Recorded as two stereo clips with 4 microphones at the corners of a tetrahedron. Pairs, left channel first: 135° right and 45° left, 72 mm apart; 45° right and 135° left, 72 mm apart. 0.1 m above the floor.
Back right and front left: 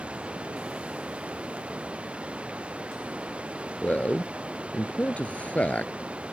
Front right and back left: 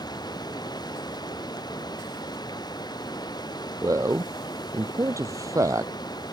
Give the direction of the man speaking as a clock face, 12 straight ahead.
7 o'clock.